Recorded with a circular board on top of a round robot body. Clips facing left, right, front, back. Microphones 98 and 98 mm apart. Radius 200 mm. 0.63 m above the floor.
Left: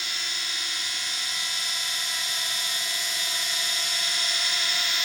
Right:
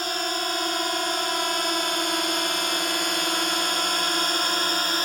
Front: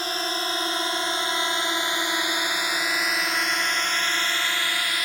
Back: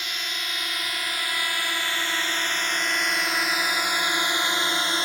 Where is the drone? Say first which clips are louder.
Right 10 dB, front 7 dB; 50° right; by 5.1 s 125° right.